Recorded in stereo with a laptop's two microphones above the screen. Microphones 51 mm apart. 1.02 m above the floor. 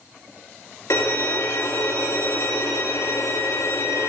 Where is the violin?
75° left (ahead or behind), 1.9 m.